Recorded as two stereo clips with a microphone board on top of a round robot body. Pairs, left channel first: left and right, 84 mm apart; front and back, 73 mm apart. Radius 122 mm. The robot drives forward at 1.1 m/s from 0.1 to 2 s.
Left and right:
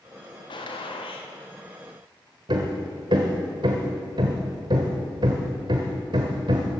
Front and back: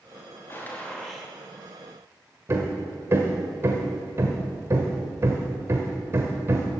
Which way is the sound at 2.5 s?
125° right.